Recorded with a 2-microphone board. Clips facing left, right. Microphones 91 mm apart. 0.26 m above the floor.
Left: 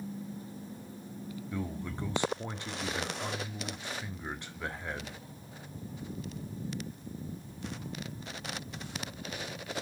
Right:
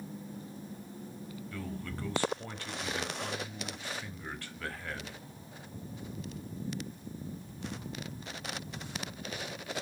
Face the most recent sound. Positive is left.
turn(degrees=20)  # may be behind; listen again after turning